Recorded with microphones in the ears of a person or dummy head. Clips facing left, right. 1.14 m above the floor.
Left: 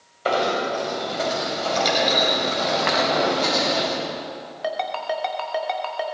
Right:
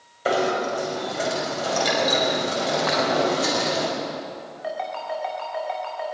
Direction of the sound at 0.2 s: 15° right (ahead or behind).